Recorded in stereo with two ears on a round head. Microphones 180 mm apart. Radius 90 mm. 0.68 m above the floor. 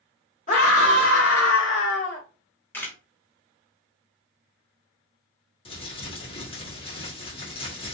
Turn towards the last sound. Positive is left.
turn(degrees=25)  # may be behind; listen again after turning